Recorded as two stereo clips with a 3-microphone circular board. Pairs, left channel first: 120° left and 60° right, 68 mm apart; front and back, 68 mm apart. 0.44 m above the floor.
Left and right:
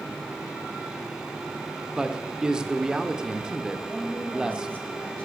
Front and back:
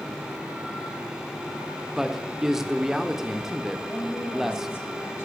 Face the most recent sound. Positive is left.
turn(degrees=50)